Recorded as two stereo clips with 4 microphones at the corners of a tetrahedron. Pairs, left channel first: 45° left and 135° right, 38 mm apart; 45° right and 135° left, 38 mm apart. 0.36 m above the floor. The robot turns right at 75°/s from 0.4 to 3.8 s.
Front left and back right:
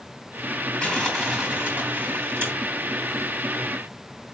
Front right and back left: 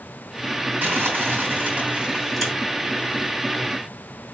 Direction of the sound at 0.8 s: 105° left.